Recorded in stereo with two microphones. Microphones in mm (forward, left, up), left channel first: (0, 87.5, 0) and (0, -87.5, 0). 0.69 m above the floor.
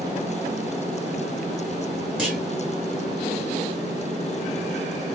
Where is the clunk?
5° right (ahead or behind), 1.8 m.